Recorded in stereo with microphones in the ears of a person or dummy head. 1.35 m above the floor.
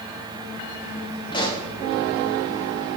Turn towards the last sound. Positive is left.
turn(degrees=25)  # may be behind; listen again after turning